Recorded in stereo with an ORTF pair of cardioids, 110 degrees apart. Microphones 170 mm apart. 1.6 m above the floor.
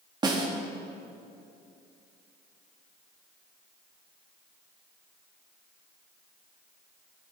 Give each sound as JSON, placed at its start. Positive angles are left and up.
{"t": 0.2, "sound": "a snare drum", "azimuth_deg": -25, "distance_m": 2.5}